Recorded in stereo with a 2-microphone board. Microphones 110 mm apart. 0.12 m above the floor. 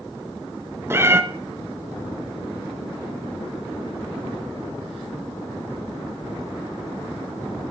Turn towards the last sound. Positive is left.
turn(degrees=-20)  # may be behind; listen again after turning